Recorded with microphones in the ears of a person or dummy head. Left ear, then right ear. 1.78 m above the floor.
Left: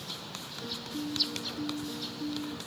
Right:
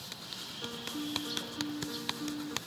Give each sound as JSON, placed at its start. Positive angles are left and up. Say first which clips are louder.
{"t": 0.6, "sound": "a piano", "louder": "left 2 dB", "side_deg": -30}